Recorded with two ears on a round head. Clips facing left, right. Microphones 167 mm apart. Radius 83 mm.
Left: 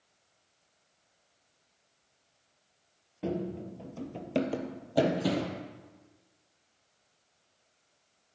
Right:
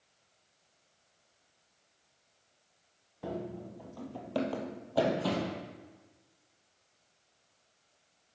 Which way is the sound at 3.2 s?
35° left (ahead or behind).